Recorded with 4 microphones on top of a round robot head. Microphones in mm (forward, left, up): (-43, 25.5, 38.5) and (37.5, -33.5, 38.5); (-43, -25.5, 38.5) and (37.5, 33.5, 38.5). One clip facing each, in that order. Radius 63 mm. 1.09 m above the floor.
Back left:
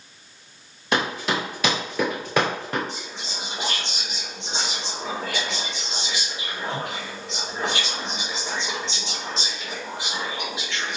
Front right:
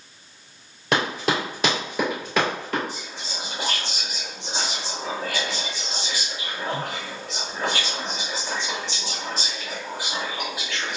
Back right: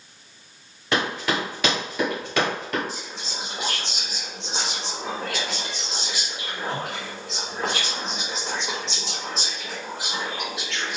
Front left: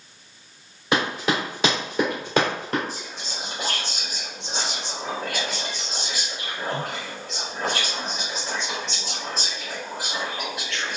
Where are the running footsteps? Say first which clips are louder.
Front right 1 dB, front left 1 dB; 35° right, 1.3 m; by 2.8 s 80° left, 1.2 m.